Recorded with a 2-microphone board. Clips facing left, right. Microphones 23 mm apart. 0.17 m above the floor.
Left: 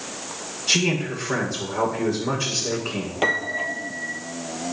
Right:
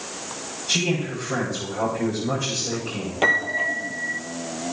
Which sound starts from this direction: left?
A man speaking, at 0.7 s.